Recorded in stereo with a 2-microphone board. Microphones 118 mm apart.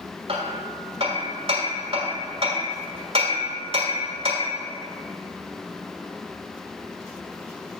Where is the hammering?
55° right (ahead or behind), 1.5 m.